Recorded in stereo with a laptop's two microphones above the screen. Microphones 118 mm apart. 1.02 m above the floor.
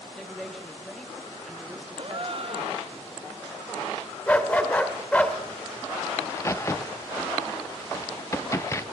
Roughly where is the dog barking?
Centre.